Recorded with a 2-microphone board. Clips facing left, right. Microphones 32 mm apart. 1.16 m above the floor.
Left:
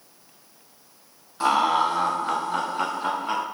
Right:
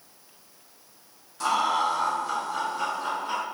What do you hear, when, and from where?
1.4 s laughter: 25° left (ahead or behind), 0.9 m; by 3.4 s 45° left (ahead or behind), 0.9 m